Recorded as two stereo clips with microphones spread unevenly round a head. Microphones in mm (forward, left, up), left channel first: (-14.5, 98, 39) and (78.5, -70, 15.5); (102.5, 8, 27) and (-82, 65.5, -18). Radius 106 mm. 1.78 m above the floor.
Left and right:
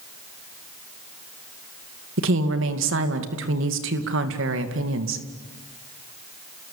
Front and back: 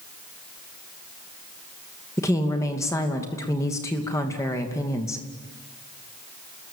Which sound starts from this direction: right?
A woman speaking, at 2.2 s.